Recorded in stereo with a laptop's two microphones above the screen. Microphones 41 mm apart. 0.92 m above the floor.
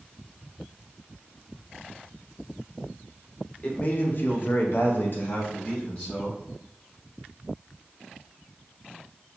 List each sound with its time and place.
3.6 s a man speaking: 30° left (ahead or behind), 0.8 m